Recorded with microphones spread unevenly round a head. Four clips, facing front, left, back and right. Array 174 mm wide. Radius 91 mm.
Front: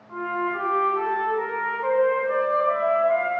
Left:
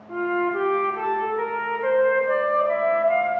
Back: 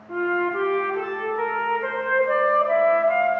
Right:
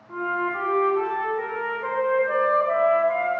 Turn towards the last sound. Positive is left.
turn(degrees=145)